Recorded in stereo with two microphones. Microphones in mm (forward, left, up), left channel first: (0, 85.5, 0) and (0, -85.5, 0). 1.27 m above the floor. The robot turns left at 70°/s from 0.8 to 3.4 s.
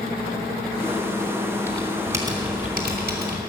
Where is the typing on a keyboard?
20° left, 3 m; by 3.4 s 105° right, 3 m.